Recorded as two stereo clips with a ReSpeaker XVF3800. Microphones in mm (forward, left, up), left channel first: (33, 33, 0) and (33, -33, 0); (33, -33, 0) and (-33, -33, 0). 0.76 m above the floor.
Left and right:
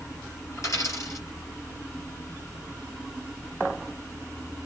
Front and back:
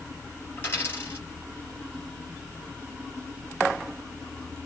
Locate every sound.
0.6 s a dropped coin: 50° left, 4.5 m